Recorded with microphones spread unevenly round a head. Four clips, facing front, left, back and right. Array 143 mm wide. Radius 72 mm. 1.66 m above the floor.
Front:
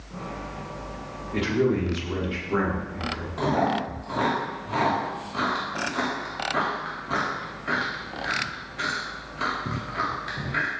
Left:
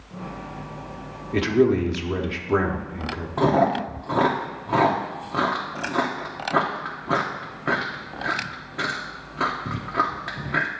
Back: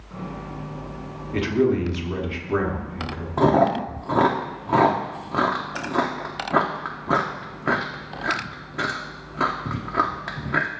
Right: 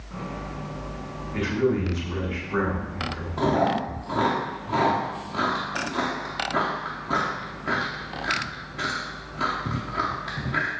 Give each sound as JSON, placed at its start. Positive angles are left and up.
{"t": 1.3, "sound": "a man speaking", "azimuth_deg": 110, "distance_m": 1.2}
{"t": 3.4, "sound": "chewing", "azimuth_deg": 160, "distance_m": 1.0}